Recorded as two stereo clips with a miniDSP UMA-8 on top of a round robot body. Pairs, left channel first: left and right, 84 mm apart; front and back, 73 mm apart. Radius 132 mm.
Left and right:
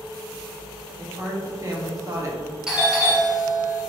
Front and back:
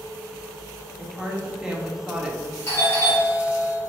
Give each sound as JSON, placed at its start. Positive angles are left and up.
{"t": 1.0, "sound": "a woman speaking", "azimuth_deg": -105, "distance_m": 1.2}
{"t": 2.7, "sound": "a doorbell", "azimuth_deg": -15, "distance_m": 2.0}